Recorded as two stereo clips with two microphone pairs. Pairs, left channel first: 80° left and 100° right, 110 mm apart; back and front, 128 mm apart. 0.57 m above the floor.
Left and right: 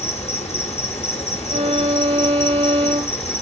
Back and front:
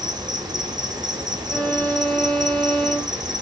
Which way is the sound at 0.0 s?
60° left.